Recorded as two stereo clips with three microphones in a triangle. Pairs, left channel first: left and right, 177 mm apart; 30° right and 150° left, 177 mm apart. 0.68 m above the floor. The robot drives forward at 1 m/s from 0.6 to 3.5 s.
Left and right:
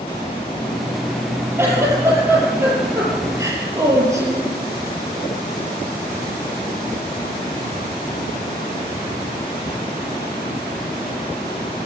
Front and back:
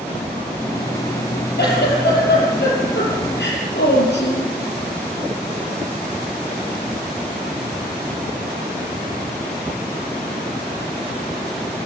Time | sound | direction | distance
1.6 | a giggle | 15° right | 8.5 m